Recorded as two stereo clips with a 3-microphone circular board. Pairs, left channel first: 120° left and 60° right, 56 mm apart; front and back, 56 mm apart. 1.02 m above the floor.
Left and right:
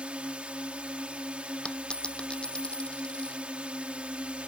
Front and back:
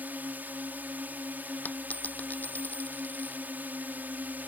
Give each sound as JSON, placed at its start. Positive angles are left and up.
{"t": 0.0, "sound": "a drone", "azimuth_deg": -125}
{"t": 1.6, "sound": "a dropped coin", "azimuth_deg": 50}